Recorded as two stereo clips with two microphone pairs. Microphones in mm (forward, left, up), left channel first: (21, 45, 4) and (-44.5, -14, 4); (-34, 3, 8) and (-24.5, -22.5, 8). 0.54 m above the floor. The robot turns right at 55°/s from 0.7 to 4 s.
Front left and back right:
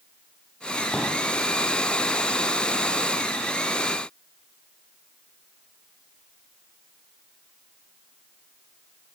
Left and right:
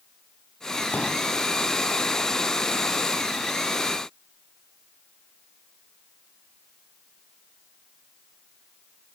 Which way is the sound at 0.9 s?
120° left.